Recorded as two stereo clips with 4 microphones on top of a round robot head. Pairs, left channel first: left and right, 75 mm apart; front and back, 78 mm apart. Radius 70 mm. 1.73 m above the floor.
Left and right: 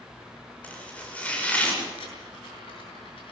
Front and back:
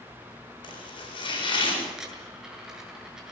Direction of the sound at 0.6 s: 15° left.